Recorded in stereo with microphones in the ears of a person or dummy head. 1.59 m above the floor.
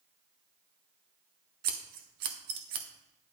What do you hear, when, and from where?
1.6 s scissors: 50° right (ahead or behind), 0.8 m